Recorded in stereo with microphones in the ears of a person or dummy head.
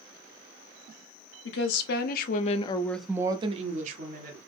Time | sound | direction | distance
1.4 | a woman speaking | 75° left (ahead or behind) | 1.2 m